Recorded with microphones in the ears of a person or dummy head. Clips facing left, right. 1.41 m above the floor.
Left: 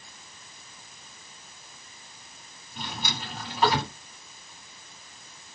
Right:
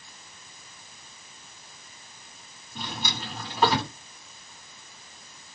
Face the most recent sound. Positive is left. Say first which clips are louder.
# right 1 dB
turn(degrees=-45)  # may be behind; listen again after turning